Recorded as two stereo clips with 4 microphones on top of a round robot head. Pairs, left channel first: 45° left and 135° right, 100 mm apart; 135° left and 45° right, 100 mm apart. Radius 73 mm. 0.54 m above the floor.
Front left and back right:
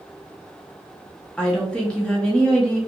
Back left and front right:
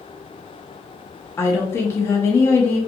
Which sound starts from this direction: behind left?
A woman speaking, at 1.4 s.